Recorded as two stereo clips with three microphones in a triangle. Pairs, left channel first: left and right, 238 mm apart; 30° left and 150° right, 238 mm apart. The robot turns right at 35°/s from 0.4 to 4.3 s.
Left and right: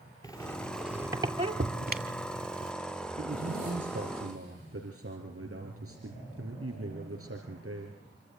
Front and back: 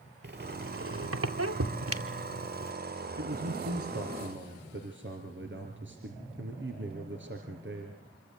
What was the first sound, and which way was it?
A squeak, 165° left.